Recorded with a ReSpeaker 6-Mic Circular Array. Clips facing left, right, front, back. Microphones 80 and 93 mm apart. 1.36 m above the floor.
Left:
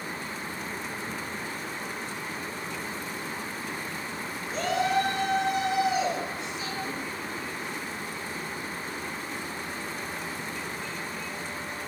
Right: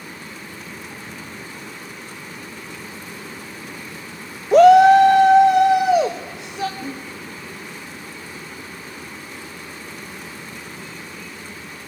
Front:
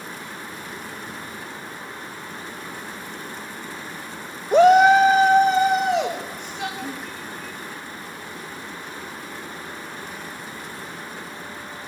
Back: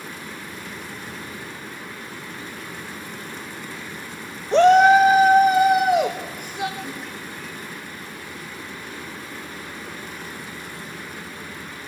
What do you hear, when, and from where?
4.5 s a shout: 80° right, 0.5 m; by 6.7 s 105° right, 1.9 m
6.8 s breathing: 55° right, 3.5 m